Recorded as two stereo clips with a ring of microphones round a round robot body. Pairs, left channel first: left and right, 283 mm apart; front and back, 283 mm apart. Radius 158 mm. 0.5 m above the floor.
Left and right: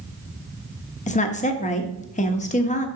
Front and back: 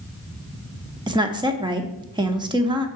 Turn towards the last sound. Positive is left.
turn(degrees=120)